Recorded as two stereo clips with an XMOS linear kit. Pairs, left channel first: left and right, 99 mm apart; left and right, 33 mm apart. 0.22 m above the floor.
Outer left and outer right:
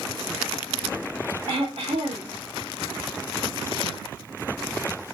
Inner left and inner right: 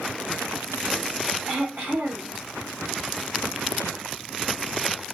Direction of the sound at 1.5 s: 70° right (ahead or behind).